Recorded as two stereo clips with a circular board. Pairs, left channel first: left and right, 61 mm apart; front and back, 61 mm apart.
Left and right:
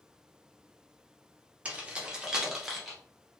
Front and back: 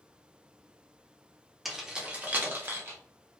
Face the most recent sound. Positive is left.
turn(degrees=180)